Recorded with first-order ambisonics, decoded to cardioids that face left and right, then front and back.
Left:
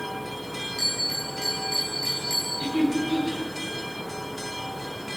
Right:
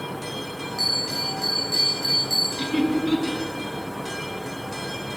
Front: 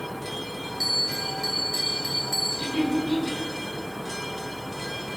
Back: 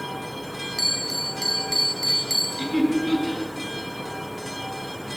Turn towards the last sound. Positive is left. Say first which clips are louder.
# right 1 dB, back 3 dB
turn(degrees=-125)